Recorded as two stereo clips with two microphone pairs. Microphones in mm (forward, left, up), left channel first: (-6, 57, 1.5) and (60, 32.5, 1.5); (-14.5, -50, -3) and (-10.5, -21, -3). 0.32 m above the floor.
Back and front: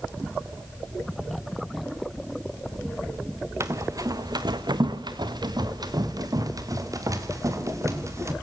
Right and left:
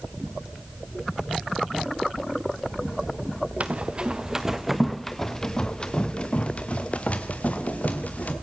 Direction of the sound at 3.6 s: 30° left.